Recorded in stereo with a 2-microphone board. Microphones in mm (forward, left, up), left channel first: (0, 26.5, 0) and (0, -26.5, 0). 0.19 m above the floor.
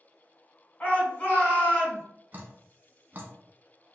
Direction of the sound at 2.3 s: 40° right (ahead or behind).